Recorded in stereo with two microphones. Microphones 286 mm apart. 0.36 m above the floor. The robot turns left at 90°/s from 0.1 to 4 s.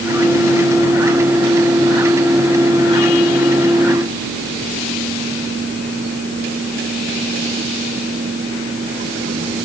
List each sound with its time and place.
Only background noise.